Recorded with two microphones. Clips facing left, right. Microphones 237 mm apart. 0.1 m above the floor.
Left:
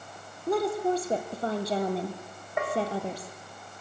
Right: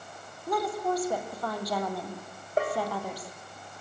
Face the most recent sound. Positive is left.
turn(degrees=-35)  # may be behind; listen again after turning